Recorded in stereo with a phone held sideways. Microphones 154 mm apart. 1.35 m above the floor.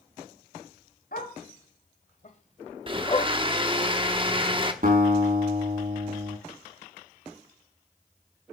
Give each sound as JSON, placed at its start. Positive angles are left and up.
{"t": 1.1, "sound": "a dog barking", "side_deg": 60, "distance_m": 2.0}
{"t": 2.9, "sound": "a blender", "side_deg": -30, "distance_m": 1.0}
{"t": 4.8, "sound": "a guitar", "side_deg": -55, "distance_m": 2.0}